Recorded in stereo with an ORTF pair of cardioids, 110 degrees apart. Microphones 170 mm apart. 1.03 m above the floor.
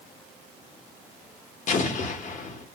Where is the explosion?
50° left, 0.8 m.